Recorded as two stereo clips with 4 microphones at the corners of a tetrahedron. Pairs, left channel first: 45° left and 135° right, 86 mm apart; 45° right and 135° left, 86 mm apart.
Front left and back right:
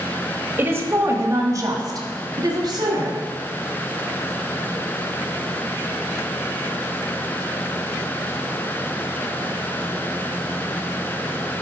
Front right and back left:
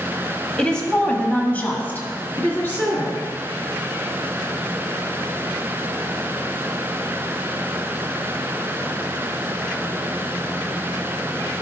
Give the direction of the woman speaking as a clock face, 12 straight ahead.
4 o'clock.